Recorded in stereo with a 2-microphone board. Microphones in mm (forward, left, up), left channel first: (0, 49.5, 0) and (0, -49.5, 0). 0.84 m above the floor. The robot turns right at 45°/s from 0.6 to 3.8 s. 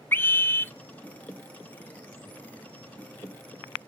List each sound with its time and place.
0.1 s a scream: 20° left (ahead or behind), 0.6 m; by 0.7 s 25° left (ahead or behind), 0.6 m